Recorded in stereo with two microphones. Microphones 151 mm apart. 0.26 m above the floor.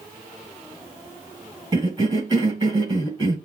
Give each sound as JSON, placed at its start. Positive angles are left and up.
{"t": 1.7, "sound": "a cough", "side_deg": -25, "distance_m": 1.7}